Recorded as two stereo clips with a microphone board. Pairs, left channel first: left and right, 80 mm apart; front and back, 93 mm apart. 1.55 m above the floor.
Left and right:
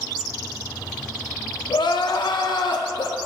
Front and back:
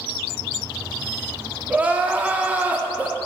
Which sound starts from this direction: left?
Crying, at 1.7 s.